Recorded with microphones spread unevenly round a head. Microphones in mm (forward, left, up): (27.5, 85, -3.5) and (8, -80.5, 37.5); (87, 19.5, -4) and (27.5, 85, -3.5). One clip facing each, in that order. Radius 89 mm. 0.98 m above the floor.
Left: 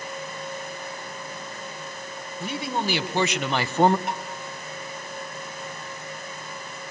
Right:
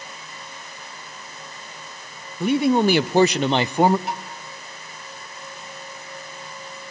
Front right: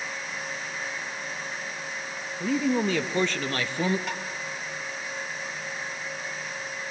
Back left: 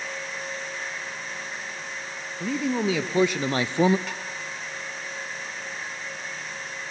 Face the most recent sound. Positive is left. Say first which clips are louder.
# right 1 dB, front right 2 dB
turn(degrees=40)